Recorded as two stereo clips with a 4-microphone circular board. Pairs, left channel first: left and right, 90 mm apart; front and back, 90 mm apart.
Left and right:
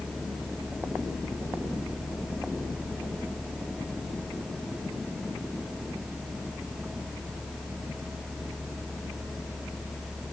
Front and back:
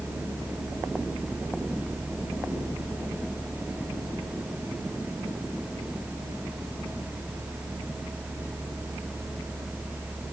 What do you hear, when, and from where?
Only background noise.